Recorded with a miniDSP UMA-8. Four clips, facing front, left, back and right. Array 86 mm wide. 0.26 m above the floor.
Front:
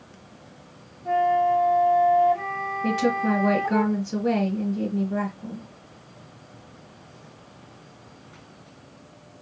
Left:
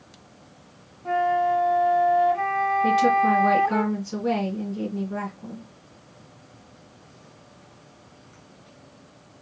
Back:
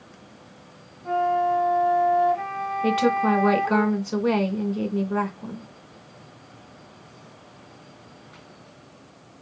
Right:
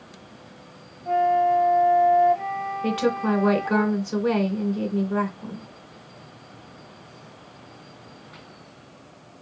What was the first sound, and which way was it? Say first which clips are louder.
A flute: right 2 dB, front 1 dB; 110° left.